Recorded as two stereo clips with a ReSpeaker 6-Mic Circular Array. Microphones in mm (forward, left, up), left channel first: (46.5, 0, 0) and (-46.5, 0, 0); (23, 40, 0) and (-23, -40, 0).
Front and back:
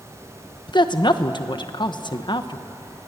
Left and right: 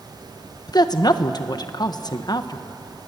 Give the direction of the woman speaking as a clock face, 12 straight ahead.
11 o'clock.